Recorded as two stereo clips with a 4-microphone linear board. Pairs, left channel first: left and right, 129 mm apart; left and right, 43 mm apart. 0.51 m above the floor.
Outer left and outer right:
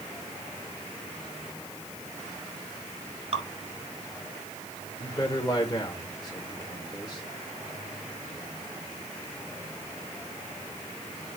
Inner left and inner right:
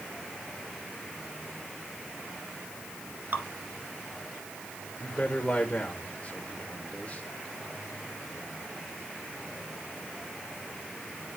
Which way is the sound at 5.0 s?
35° left (ahead or behind).